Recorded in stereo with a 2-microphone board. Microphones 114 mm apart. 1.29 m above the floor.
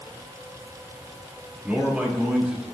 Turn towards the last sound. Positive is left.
turn(degrees=-5)  # may be behind; listen again after turning